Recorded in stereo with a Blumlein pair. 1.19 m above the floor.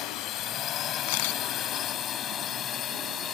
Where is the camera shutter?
50° left.